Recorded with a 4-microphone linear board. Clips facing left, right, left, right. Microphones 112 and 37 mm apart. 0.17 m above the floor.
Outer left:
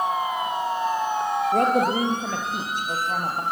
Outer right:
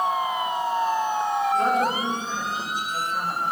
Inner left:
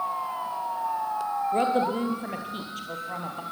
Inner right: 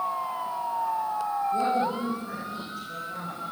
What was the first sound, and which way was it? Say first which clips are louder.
A woman speaking: outer left 4 dB, inner left 3 dB; 65° left (ahead or behind).